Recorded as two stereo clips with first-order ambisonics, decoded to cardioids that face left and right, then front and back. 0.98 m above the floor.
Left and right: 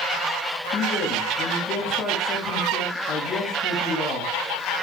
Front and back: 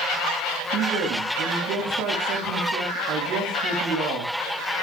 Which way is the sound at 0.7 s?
155° left.